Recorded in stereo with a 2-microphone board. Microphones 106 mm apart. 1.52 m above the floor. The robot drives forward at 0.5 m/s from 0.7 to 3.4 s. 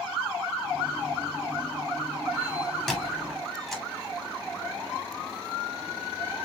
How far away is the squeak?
About 2 m.